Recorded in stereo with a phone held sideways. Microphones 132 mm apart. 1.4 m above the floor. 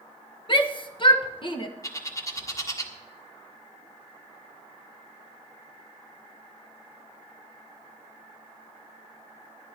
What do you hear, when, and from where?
0.5 s a shout: 40° left (ahead or behind), 1.4 m
1.8 s a bird: 25° left (ahead or behind), 1.4 m